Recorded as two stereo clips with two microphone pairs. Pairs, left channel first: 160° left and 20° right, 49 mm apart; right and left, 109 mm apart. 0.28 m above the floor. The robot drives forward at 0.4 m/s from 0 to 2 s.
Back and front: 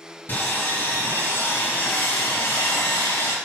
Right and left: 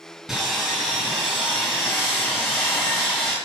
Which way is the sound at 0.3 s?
175° left.